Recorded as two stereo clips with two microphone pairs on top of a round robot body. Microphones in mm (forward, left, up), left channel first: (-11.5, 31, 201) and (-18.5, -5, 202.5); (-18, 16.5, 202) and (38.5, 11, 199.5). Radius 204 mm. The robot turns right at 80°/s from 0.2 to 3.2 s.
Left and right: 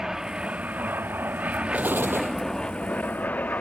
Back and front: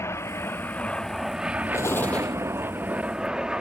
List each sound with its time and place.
0.0 s an aircraft: 175° right; by 3.6 s 65° left
1.7 s an explosion: 150° right; by 2.4 s 100° right